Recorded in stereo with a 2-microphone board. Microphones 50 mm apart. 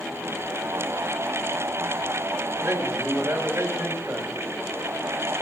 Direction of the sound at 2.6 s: 55° right (ahead or behind).